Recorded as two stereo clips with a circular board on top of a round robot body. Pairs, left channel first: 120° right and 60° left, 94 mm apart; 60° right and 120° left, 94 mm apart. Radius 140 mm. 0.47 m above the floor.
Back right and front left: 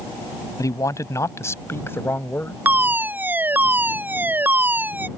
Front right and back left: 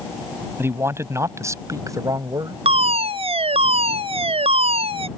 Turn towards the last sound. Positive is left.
turn(degrees=130)